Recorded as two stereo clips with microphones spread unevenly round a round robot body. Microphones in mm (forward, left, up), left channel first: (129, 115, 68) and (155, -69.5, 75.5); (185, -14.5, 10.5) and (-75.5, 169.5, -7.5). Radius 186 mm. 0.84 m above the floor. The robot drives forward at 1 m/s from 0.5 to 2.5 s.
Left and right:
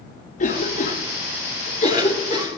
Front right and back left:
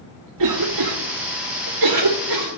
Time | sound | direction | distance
0.4 | a cough | 145° left | 2.5 m